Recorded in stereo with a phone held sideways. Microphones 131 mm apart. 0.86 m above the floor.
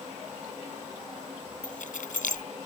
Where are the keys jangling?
75° left (ahead or behind).